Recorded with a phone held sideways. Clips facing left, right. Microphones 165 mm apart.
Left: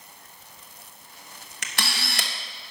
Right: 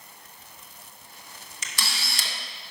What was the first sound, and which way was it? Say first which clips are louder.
A camera shutter: left 4 dB; 70° left (ahead or behind).